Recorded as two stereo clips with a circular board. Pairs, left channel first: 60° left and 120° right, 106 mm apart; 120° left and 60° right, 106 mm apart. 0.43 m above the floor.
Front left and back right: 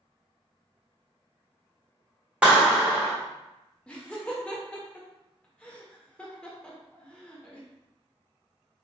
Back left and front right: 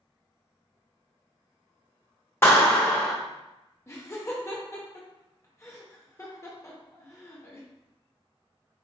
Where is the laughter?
130° left, 0.8 m.